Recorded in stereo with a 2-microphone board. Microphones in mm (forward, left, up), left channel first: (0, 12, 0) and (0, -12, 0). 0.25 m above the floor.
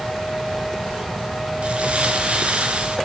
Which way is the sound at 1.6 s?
70° right (ahead or behind).